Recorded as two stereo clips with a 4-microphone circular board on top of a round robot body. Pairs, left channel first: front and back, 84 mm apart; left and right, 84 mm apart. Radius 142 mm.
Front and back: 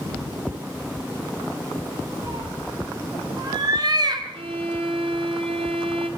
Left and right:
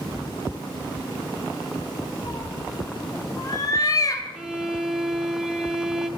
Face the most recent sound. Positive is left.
turn(degrees=-175)